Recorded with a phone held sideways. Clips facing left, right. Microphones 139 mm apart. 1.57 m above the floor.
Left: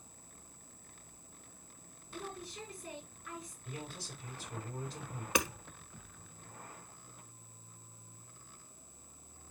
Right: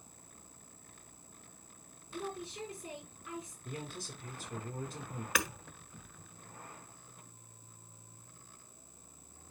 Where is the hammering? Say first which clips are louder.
Left 3 dB; 20° left (ahead or behind), 1.4 m.